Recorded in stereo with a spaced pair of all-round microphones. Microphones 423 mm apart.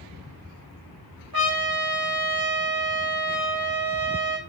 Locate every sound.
1.3 s a trumpet: 55° right (ahead or behind), 1.0 m